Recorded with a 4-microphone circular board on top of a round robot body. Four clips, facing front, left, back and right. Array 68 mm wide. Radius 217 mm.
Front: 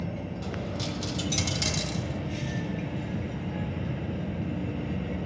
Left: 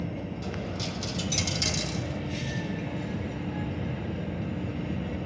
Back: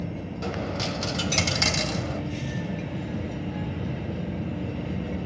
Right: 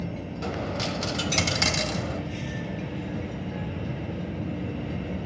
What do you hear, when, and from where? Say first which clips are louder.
0.4 s a dropped coin: right 9 dB, back 7 dB; 125° right, 1.1 m